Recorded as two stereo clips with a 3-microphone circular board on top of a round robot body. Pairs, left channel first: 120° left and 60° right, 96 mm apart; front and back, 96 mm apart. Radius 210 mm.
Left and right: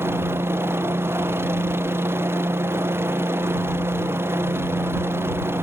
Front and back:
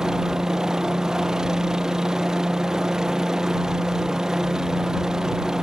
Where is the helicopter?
100° right.